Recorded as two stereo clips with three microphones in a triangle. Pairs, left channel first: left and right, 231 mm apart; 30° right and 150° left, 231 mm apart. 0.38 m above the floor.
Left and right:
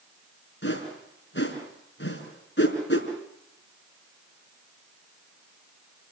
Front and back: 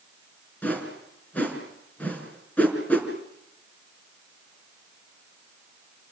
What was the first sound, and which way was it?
A whoosh, 55° left.